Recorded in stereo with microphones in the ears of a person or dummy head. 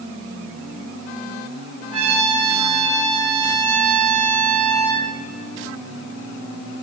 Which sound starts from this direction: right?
A trumpet, at 1.9 s.